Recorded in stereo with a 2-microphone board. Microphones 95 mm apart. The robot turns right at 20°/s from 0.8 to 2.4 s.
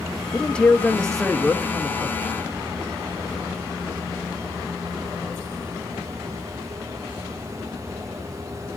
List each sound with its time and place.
0.3 s a man speaking: 10° left (ahead or behind), 0.9 m; by 2.2 s 10° right (ahead or behind), 0.9 m